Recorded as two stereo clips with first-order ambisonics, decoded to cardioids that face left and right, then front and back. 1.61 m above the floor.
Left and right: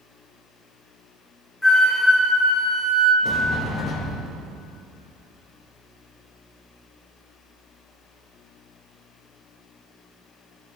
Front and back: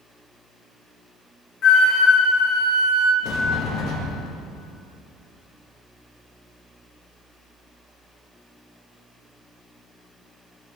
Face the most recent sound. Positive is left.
turn(degrees=35)